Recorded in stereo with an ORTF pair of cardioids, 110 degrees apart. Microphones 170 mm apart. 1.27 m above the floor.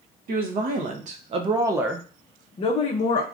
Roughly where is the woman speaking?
Ahead right.